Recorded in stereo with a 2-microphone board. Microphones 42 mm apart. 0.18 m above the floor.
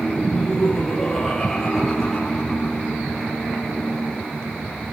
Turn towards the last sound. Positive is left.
turn(degrees=10)  # may be behind; listen again after turning